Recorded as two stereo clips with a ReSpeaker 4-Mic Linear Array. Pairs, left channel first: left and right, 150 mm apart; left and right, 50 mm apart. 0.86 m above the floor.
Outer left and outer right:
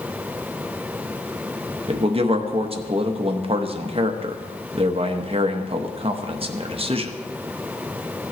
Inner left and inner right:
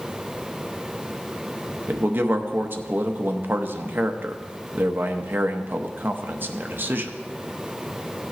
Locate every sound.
1.9 s a man speaking: 40° right (ahead or behind), 0.9 m